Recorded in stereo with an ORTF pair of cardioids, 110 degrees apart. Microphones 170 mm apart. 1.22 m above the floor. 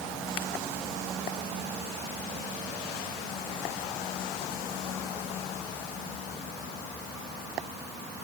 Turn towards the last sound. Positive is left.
No sound to turn to.